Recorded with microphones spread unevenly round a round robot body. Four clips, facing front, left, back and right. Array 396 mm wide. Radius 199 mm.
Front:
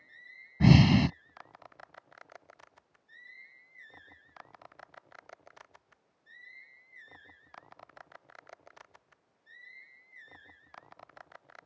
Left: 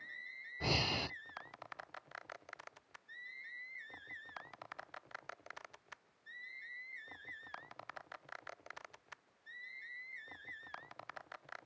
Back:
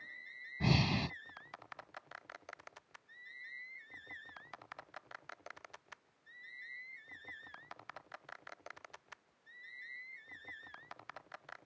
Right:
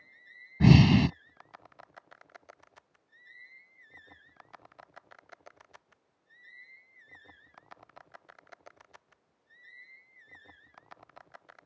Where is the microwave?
No microwave in this recording.